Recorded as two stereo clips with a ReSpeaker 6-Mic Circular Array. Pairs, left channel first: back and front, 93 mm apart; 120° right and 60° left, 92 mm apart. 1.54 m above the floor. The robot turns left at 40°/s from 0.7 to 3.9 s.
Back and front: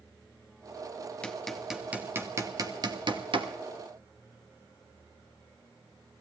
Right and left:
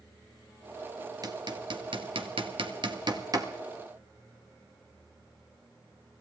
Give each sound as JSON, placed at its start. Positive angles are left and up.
{"t": 1.2, "sound": "hammering", "azimuth_deg": 100, "distance_m": 1.6}